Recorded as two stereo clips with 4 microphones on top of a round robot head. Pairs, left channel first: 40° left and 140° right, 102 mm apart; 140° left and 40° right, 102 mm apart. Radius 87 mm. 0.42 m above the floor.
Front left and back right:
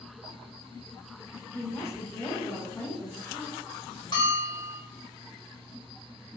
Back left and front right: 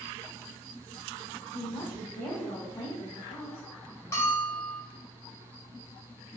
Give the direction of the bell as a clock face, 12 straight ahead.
9 o'clock.